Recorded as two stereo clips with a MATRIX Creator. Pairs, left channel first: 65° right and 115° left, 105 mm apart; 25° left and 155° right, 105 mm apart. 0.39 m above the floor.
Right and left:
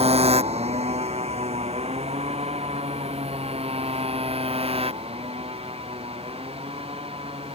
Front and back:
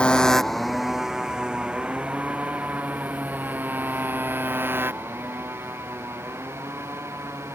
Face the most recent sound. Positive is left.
turn(degrees=135)